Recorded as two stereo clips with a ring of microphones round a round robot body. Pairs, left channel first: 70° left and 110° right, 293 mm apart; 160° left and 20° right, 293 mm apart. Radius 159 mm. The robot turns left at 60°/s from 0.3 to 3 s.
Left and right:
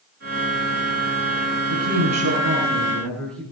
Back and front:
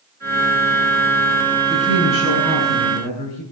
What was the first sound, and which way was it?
A woman speaking, 125° right.